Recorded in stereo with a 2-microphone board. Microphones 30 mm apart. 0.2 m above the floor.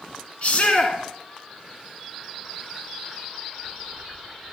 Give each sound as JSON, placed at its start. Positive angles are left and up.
{"t": 0.4, "sound": "a shout", "side_deg": 45, "distance_m": 2.0}